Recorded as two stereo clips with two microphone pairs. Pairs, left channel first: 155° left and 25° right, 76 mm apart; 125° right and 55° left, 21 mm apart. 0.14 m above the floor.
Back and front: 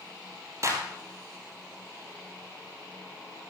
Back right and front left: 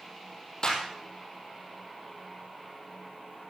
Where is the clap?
75° right, 3 m.